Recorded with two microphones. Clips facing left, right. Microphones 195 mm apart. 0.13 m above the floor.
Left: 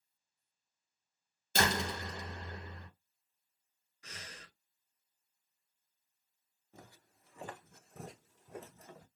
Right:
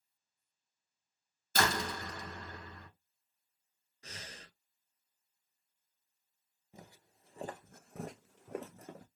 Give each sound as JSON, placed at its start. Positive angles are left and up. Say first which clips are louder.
{"t": 1.6, "sound": "a door slam", "louder": "even", "side_deg": 25, "distance_m": 0.8}
{"t": 4.0, "sound": "breathing", "louder": "right 2 dB", "side_deg": -35, "distance_m": 0.5}
{"t": 6.7, "sound": "footsteps", "louder": "right 1 dB", "side_deg": -15, "distance_m": 0.9}